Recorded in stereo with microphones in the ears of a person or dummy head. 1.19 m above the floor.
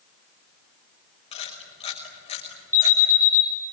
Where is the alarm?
15° left (ahead or behind), 4 m.